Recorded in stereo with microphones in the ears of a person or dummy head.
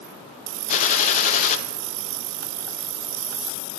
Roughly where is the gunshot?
Left.